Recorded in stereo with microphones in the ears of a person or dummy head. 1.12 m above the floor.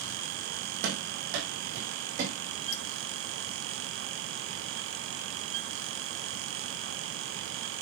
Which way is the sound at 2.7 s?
60° left (ahead or behind).